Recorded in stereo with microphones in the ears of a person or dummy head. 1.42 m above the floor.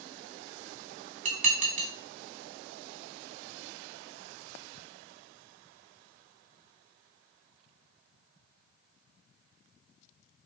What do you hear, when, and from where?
1.2 s dishes clattering: 45° right (ahead or behind), 1.3 m